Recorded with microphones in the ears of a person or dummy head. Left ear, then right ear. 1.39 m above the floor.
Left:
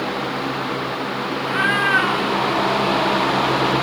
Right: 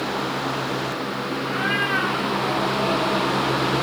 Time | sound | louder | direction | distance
1.4 | a cat meowing | left 5 dB | 65° left (ahead or behind) | 2.0 m